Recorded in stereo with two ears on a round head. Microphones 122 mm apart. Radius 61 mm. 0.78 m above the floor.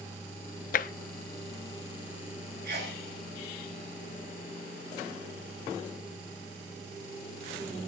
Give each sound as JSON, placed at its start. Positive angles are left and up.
{"t": 0.7, "sound": "tapping", "side_deg": 65, "distance_m": 0.8}
{"t": 2.6, "sound": "a sneeze", "side_deg": -70, "distance_m": 6.5}